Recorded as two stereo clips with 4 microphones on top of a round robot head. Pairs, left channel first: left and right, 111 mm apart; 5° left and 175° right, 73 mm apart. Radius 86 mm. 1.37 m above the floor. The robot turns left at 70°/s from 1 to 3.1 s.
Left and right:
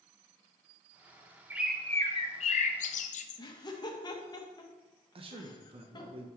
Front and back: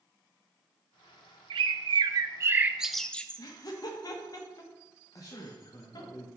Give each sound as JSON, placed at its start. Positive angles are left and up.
{"t": 1.5, "sound": "a bird", "azimuth_deg": -165, "distance_m": 0.5}
{"t": 3.4, "sound": "laughter", "azimuth_deg": 35, "distance_m": 1.4}
{"t": 5.2, "sound": "a man speaking", "azimuth_deg": -50, "distance_m": 1.1}